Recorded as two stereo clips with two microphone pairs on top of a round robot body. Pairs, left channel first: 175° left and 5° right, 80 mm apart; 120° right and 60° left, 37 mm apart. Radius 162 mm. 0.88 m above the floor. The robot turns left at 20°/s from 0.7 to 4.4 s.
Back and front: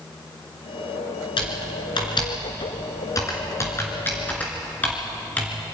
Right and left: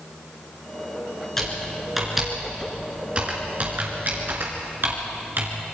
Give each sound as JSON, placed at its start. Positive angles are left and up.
{"t": 1.4, "sound": "typing on a keyboard", "azimuth_deg": 165, "distance_m": 2.0}